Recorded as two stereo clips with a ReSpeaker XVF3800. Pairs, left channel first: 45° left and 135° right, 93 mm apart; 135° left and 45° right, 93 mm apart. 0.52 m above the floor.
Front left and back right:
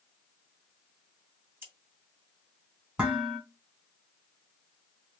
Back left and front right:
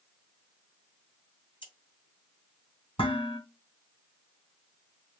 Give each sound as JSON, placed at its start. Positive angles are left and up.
{"t": 1.6, "sound": "scissors", "azimuth_deg": 160, "distance_m": 2.5}
{"t": 3.0, "sound": "dishes clattering", "azimuth_deg": 150, "distance_m": 3.0}